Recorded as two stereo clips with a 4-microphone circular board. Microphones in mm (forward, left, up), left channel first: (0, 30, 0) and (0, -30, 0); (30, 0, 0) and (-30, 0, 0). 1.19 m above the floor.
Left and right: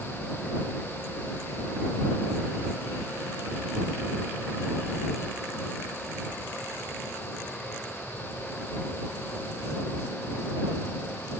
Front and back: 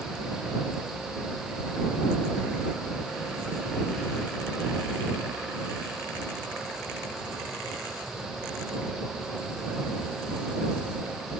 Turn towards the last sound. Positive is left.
No sound to turn to.